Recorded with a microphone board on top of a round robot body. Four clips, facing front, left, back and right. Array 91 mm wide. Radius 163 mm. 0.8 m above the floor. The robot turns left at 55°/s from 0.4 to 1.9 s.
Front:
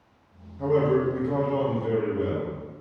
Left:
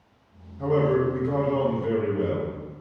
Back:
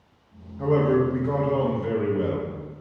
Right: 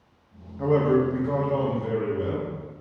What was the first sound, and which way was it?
A man speaking, 115° right.